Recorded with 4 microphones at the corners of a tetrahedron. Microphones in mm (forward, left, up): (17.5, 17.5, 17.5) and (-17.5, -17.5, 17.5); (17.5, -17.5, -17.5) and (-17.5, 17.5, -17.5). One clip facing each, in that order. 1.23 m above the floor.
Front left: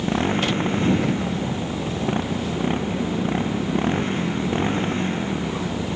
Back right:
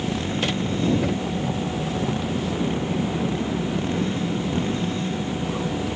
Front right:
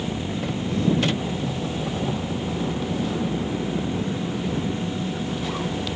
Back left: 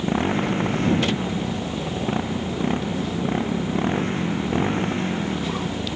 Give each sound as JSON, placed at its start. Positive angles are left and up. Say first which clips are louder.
{"t": 0.0, "sound": "a motorcycle", "louder": "front left 3 dB, back left 5 dB", "azimuth_deg": 100}